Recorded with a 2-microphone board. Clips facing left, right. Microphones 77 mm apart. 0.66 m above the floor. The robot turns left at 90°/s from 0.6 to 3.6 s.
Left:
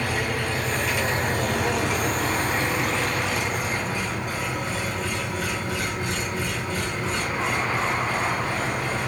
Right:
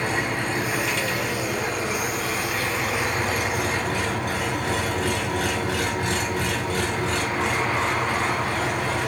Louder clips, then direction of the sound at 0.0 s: Right 1 dB; 160° right.